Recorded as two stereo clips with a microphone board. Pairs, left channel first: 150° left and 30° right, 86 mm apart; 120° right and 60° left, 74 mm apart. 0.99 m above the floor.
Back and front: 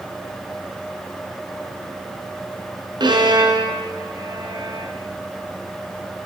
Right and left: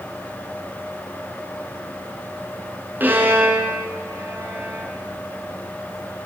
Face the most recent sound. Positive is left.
turn(degrees=-5)